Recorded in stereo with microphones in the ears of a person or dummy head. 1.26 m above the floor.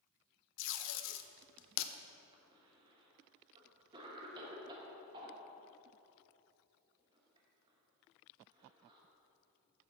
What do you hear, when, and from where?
0.6 s tape being pulled: 75° left (ahead or behind), 0.7 m
2.3 s a cough: 20° right (ahead or behind), 1.3 m